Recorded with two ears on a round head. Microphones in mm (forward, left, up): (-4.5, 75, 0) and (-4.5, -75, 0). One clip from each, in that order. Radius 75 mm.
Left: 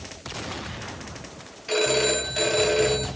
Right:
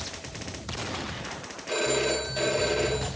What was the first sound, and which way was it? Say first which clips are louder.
A phone ringing: left 4 dB; 50° left (ahead or behind).